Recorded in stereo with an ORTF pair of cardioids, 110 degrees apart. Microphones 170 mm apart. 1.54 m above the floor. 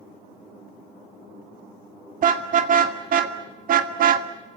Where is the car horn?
55° right, 2.5 m; by 4.3 s 65° right, 1.5 m.